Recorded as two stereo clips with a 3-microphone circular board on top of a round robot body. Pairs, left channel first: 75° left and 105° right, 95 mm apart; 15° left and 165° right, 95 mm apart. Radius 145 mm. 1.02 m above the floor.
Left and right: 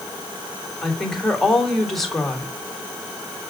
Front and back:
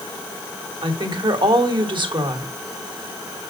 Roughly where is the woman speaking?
Behind.